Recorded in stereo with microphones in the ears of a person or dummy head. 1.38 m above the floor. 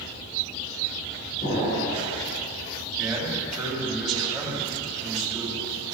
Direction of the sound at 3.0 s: 5° left (ahead or behind).